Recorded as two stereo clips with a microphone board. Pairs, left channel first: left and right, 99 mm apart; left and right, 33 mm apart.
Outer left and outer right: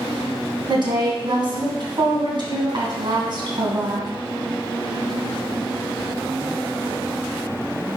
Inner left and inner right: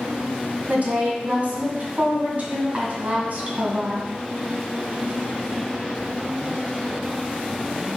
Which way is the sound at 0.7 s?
55° right (ahead or behind).